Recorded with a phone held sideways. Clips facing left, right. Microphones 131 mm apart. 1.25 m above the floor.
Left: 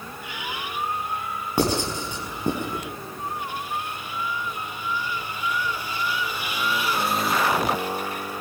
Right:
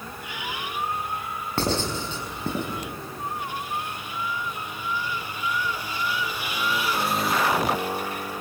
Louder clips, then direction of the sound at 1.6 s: Left 3 dB; 15° left (ahead or behind).